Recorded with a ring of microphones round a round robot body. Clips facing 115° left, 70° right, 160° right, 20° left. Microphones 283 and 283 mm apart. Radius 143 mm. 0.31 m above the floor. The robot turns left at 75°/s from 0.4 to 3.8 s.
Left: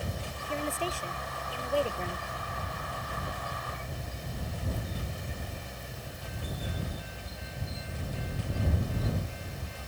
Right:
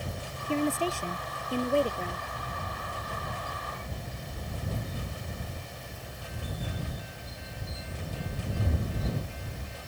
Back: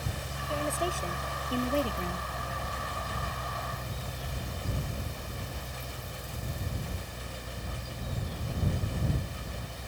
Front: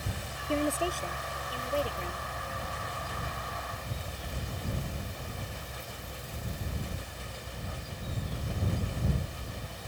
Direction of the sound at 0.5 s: 40° right.